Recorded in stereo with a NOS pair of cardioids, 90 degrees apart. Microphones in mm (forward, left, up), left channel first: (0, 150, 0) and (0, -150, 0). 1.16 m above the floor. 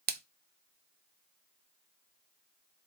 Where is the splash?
30° right, 0.6 m.